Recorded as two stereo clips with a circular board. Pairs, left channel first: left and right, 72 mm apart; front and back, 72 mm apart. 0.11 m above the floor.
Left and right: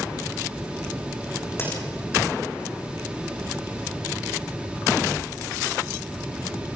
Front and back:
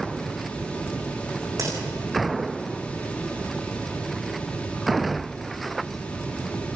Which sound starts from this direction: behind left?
A crack, at 1.6 s.